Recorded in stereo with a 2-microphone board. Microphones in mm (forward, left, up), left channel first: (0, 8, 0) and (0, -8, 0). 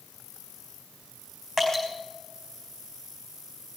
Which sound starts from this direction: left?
Dripping, at 1.6 s.